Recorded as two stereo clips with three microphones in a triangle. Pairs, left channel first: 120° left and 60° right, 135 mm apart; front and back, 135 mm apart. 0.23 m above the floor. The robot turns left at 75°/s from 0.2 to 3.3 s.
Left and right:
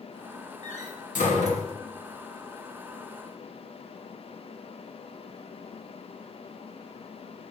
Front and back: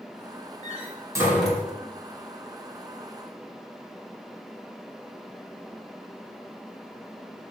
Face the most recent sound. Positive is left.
turn(degrees=-50)